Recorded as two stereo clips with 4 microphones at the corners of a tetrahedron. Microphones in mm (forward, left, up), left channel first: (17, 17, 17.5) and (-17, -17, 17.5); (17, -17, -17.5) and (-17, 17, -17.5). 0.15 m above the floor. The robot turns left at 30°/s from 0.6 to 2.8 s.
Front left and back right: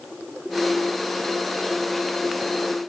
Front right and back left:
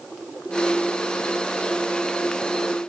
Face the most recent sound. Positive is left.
No sound to turn to.